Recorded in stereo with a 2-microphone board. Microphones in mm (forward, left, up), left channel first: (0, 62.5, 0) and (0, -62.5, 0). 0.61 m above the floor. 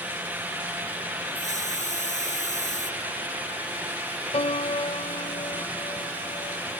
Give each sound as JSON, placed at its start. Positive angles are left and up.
{"t": 1.4, "sound": "a hiss", "side_deg": 70}
{"t": 4.3, "sound": "a piano", "side_deg": 50}